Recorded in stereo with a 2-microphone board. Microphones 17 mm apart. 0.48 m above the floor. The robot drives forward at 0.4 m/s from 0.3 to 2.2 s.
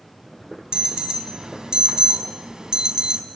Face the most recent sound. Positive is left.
turn(degrees=-45)  # may be behind; listen again after turning